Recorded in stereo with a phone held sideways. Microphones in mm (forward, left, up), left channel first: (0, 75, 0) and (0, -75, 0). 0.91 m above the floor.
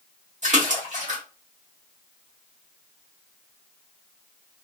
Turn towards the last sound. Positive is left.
turn(degrees=-55)  # may be behind; listen again after turning